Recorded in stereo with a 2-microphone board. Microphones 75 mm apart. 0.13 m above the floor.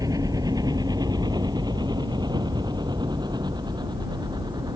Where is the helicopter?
55° right (ahead or behind); by 4.8 s 65° right (ahead or behind).